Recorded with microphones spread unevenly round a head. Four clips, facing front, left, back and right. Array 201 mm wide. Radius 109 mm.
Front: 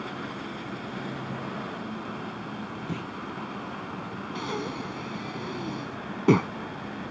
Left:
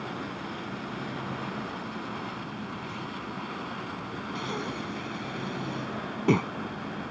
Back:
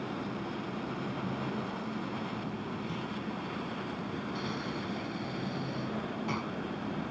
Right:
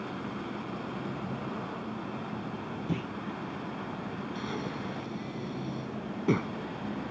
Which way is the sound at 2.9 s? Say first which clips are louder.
Right 3 dB, front 3 dB; 65° right.